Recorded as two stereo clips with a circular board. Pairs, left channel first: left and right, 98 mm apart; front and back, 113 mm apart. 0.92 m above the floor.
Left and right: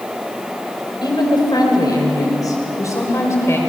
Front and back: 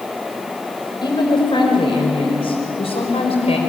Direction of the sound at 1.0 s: 50° left.